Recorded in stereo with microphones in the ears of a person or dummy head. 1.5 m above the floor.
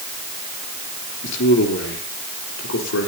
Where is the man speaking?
65° left (ahead or behind), 4 m; by 3.1 s 80° left, 4.5 m.